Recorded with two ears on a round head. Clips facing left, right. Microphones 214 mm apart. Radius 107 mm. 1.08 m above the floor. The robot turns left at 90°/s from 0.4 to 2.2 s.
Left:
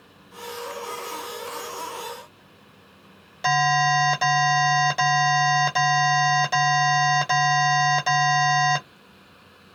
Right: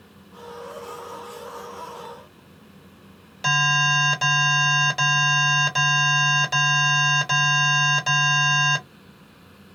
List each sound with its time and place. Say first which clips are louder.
3.4 s an alarm: left 6 dB; 10° right (ahead or behind), 1.7 m